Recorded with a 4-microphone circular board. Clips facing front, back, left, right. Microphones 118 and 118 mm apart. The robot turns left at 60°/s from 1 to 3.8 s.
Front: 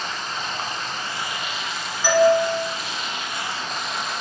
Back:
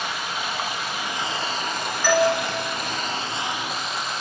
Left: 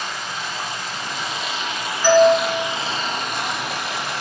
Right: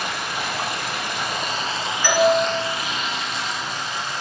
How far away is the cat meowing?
I don't hear a cat meowing.